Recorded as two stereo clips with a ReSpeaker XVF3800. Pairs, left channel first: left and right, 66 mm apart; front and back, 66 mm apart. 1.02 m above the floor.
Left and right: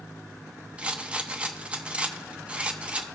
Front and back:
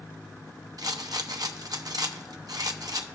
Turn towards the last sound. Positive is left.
turn(degrees=-160)